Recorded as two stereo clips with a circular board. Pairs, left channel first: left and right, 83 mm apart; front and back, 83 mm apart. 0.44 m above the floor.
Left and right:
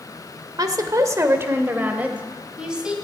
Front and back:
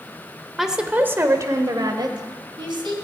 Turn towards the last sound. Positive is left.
turn(degrees=-170)